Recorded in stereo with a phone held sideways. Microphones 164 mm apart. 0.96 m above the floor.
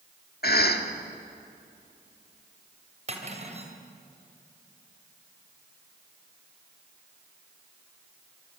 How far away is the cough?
About 2.5 m.